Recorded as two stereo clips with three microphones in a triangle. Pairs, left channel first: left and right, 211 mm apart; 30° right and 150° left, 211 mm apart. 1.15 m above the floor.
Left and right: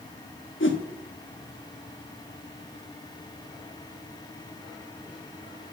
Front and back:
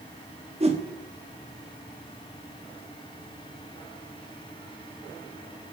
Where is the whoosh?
95° left, 1.3 m.